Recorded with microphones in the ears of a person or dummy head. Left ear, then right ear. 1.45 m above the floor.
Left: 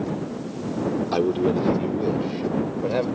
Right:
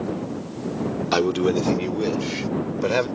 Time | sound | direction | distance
1.1 | a man speaking | 65° right (ahead or behind) | ?